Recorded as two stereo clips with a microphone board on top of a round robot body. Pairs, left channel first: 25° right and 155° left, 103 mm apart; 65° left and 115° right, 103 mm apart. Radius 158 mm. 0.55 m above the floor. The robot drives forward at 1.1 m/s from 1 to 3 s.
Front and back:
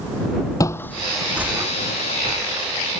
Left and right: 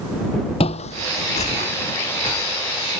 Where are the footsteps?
35° left; by 3.0 s 110° left.